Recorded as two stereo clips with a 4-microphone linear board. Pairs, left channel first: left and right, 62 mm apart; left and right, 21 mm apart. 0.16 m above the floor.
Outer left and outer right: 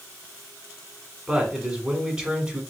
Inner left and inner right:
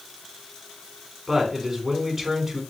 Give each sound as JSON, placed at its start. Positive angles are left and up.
{"t": 1.3, "sound": "a man speaking", "side_deg": -15, "distance_m": 1.3}